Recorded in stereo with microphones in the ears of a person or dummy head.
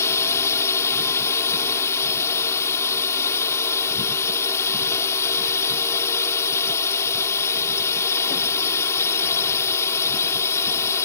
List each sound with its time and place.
0.0 s a drone: 10° left (ahead or behind)